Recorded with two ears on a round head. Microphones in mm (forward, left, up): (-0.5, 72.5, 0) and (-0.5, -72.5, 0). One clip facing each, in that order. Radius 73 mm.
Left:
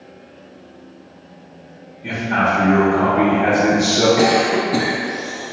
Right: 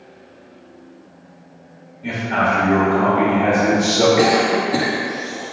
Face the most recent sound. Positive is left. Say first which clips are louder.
# even
turn(degrees=0)  # may be behind; listen again after turning